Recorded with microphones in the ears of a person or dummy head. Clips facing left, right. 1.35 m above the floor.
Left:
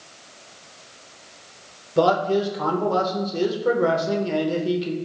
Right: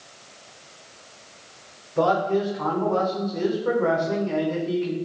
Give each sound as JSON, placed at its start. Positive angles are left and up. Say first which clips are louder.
{"t": 2.0, "sound": "a man speaking", "louder": "left 2 dB", "side_deg": 50, "distance_m": 0.9}